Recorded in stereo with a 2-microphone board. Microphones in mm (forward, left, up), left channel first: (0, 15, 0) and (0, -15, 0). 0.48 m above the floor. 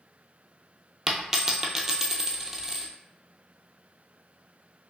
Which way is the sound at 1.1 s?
10° right (ahead or behind).